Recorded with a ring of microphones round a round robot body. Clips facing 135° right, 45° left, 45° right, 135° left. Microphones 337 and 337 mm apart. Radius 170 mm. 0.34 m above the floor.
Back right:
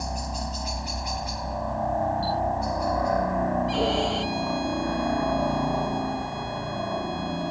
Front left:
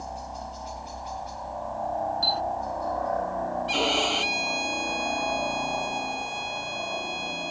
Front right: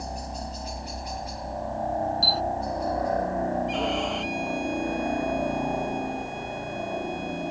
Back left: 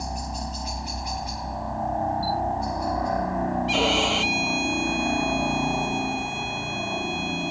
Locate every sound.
0.0 s a helicopter: 160° right
2.2 s a camera shutter: 15° right
3.7 s a violin: 110° left